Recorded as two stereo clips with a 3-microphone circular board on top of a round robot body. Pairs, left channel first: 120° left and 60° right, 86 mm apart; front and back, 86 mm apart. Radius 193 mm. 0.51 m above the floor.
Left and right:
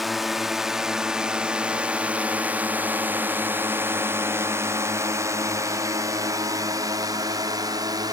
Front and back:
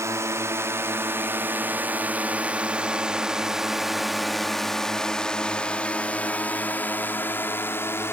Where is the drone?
145° right; by 8.2 s 50° right.